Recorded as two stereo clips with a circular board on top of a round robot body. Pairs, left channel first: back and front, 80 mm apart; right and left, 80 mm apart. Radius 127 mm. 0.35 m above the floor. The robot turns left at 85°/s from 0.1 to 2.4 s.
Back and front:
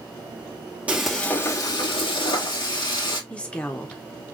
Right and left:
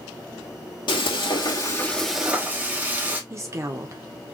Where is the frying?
70° right, 2 m; by 3.2 s 160° left, 2 m.